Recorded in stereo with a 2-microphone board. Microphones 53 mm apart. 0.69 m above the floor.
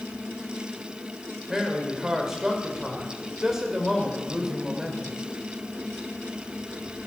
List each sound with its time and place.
1.5 s a man speaking: 10° right (ahead or behind), 3 m